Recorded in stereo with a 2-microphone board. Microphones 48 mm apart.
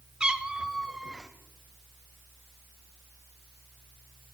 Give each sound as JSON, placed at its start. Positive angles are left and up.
{"t": 0.2, "sound": "a cat meowing", "side_deg": -20, "distance_m": 1.0}